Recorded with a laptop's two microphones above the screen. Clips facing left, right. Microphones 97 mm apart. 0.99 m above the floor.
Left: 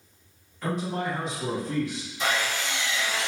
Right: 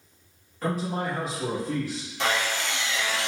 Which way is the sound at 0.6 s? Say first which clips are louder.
Right 1 dB; 45° right (ahead or behind).